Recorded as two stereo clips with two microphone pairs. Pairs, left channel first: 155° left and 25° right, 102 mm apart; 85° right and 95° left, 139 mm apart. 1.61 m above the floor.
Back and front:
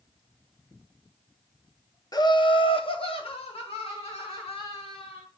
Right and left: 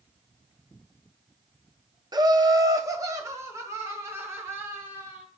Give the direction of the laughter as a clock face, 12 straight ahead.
7 o'clock.